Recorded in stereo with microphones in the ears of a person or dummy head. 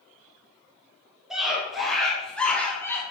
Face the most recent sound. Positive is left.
turn(degrees=25)  # may be behind; listen again after turning